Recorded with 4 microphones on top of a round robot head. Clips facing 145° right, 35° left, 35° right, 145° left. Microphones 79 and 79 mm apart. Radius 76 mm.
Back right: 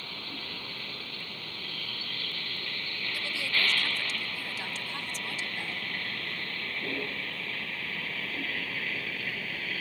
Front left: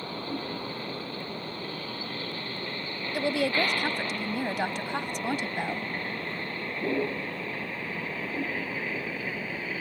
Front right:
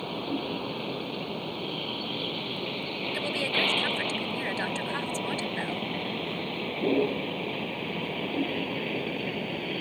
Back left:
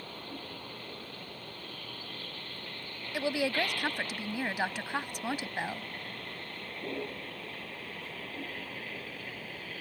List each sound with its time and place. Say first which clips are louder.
0.0 s a vehicle: front left 8 dB, front right 12 dB; 30° right; by 9.8 s 40° right
3.1 s a woman speaking: front left 9 dB, back left 2 dB; 70° left